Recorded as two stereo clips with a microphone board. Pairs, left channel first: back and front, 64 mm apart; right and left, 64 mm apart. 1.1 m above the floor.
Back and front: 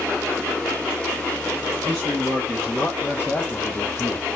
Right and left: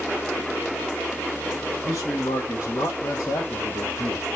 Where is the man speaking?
85° right, 1.8 m; by 4.3 s 140° right, 1.1 m.